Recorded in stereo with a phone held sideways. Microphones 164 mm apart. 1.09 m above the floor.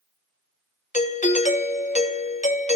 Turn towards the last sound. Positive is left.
turn(degrees=50)  # may be behind; listen again after turning